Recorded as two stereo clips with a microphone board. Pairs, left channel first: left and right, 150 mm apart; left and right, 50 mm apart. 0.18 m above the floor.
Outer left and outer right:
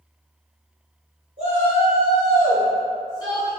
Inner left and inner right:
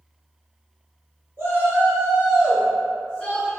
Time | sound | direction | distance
1.4 | a shout | 45° right (ahead or behind) | 1.9 m